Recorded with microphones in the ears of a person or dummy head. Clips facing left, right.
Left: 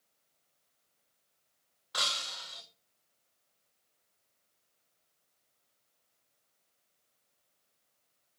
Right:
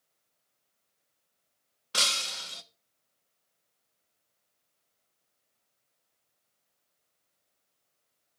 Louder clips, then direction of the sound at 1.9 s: Right 4 dB; 45° right (ahead or behind).